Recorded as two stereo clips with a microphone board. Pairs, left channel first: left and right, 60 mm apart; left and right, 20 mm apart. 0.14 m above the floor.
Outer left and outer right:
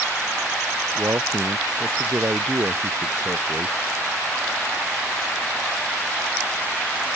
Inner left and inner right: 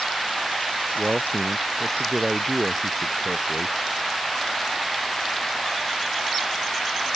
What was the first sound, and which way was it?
A man speaking, 55° right (ahead or behind).